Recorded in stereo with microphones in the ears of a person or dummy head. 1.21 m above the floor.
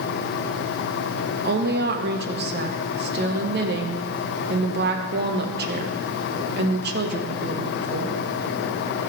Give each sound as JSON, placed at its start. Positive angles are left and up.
{"t": 1.4, "sound": "a woman speaking", "side_deg": -50, "distance_m": 1.1}